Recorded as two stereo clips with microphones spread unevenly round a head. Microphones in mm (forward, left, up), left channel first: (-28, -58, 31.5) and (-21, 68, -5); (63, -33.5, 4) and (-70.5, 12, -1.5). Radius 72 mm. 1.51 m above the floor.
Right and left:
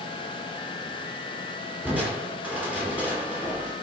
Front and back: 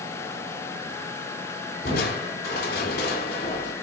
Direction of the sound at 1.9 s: Straight ahead.